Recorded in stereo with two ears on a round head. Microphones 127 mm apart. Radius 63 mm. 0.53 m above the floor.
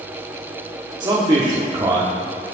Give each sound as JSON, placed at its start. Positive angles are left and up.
{"t": 1.0, "sound": "a man speaking", "side_deg": -30, "distance_m": 1.3}